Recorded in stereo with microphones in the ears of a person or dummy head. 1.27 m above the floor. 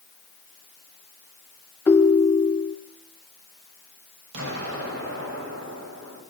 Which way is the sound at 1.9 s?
15° left (ahead or behind).